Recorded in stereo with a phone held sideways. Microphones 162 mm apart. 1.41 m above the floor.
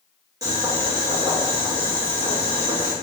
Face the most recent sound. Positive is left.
turn(degrees=-20)  # may be behind; listen again after turning